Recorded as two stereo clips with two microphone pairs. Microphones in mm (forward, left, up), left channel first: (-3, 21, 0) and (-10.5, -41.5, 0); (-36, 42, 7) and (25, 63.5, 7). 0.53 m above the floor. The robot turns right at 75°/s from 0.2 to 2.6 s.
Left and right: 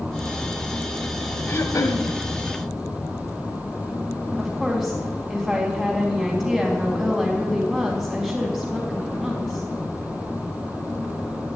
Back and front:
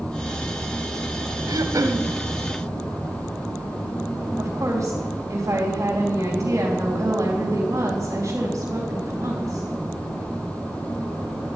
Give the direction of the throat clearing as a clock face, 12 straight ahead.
11 o'clock.